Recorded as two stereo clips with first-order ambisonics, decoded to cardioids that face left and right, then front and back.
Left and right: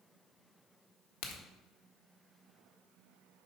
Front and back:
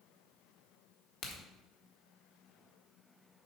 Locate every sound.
1.2 s a crack: 60° left, 1.4 m